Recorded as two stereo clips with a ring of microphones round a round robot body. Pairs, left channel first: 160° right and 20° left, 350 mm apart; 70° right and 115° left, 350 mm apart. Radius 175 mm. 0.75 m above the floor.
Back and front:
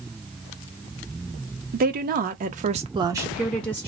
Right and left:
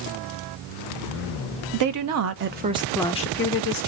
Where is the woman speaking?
85° left, 0.8 m; by 3.9 s 75° right, 0.7 m.